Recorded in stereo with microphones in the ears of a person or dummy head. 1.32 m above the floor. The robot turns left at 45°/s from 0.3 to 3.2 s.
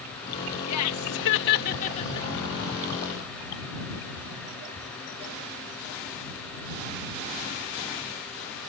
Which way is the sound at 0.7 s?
90° left.